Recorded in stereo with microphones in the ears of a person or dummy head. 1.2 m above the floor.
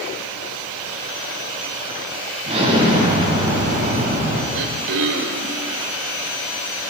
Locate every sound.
2.5 s an explosion: 30° right (ahead or behind), 6 m
4.5 s throat clearing: 65° right (ahead or behind), 2.0 m